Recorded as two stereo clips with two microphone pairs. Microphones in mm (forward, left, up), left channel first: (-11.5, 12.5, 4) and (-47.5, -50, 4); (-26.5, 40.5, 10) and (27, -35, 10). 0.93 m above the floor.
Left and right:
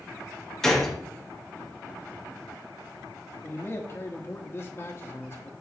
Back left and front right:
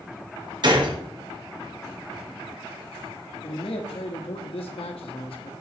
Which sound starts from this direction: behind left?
A man speaking, at 3.4 s.